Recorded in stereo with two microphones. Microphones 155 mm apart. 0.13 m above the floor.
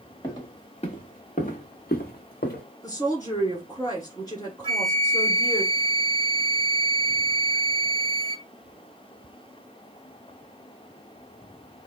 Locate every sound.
0.2 s footsteps: 30° left (ahead or behind), 1.3 m; by 2.6 s 75° left (ahead or behind), 1.0 m
2.8 s a woman speaking: 25° left (ahead or behind), 1.6 m
4.6 s a flute: 40° right (ahead or behind), 0.6 m